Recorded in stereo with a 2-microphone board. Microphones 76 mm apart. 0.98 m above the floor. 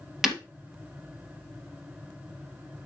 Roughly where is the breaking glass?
Centre.